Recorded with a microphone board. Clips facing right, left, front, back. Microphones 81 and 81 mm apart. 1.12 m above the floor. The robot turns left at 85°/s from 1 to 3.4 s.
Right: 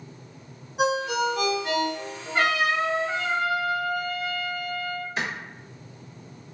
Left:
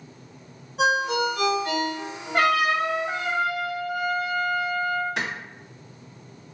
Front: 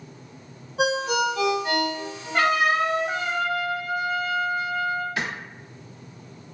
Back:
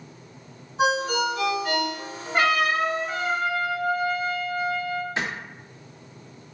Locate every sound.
0.8 s a ringtone: straight ahead, 1.6 m; by 2.4 s 120° right, 1.6 m
2.3 s a trumpet: 110° left, 0.9 m; by 5.1 s 20° left, 0.9 m
5.2 s a clap: 115° left, 1.5 m